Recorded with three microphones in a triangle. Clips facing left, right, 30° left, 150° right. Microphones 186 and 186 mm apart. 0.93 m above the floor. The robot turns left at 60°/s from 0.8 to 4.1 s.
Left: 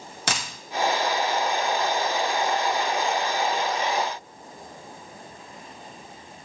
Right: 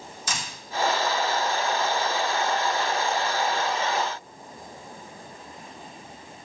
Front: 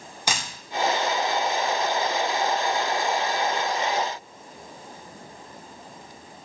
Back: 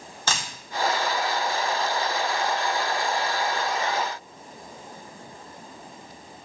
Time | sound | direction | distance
0.3 | a dropped coin | 105° left | 1.0 m